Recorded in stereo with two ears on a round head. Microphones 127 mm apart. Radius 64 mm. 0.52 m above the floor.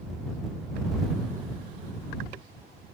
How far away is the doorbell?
I don't hear a doorbell.